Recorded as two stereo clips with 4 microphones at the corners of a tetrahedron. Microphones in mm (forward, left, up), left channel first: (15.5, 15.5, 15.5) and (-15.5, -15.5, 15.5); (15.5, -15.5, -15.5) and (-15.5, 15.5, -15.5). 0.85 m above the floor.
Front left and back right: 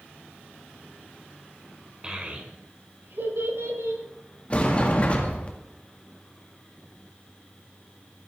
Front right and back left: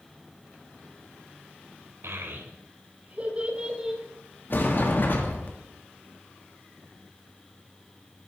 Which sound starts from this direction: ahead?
A sliding door, at 4.5 s.